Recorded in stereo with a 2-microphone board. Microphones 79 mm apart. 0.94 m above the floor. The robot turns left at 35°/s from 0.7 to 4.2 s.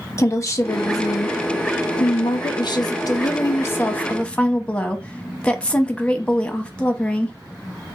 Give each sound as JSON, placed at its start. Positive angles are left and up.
{"t": 0.2, "sound": "a woman speaking", "azimuth_deg": 140, "distance_m": 0.8}